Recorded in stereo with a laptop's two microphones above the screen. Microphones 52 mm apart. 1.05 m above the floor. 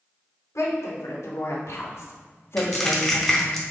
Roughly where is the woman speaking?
Left.